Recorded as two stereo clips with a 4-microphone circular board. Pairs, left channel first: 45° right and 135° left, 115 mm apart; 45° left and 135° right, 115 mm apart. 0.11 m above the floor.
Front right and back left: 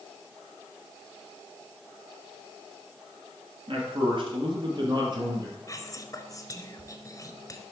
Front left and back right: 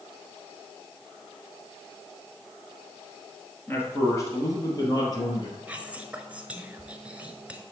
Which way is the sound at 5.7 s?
65° right.